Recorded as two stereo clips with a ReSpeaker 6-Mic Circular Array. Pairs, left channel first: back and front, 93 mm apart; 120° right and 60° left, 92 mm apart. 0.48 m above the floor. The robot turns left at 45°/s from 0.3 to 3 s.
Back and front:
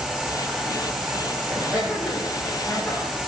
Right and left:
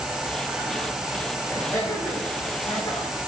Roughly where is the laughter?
Ahead right.